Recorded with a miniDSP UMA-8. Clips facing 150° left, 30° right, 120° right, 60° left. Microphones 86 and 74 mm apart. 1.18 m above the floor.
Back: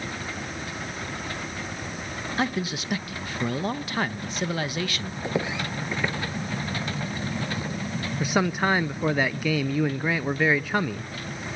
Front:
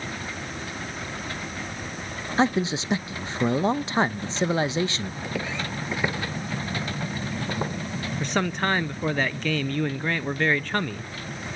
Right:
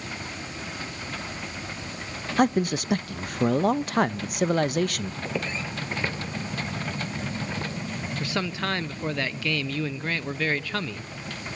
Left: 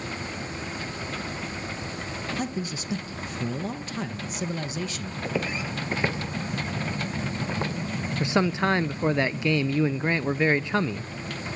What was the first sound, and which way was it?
A man speaking, 95° right.